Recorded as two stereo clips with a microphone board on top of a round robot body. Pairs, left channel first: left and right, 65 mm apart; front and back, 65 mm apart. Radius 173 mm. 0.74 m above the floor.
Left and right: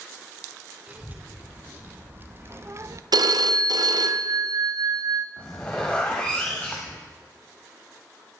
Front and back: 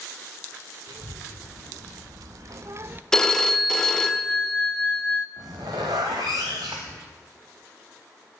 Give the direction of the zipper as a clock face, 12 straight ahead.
6 o'clock.